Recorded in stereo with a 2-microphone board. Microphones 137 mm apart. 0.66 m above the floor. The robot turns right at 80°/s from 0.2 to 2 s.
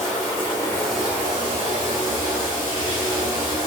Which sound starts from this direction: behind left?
Running water, at 0.0 s.